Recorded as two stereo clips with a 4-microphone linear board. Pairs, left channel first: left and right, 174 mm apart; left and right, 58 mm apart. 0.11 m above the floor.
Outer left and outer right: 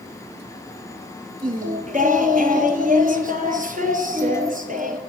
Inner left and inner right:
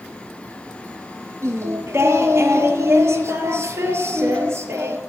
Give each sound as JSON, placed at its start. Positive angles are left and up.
{"t": 1.4, "sound": "singing", "side_deg": -50, "distance_m": 0.7}